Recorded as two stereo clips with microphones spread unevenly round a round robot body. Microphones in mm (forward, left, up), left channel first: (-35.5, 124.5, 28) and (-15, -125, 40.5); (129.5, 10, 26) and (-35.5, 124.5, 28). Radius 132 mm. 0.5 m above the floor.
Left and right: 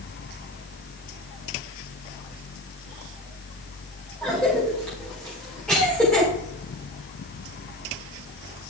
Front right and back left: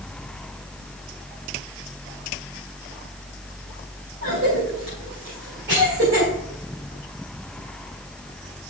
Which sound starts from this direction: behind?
A cough, at 4.2 s.